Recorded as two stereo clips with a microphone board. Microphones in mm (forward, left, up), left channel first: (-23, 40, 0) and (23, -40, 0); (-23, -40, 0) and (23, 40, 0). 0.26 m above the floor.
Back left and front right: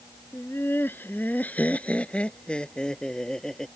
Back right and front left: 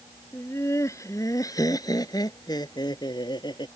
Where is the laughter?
Straight behind; by 3.7 s 155° right.